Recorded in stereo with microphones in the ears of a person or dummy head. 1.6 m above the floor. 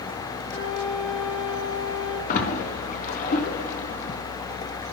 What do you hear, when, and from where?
0.5 s a flute: 75° left (ahead or behind), 4 m
2.3 s a splash: 50° left (ahead or behind), 1.1 m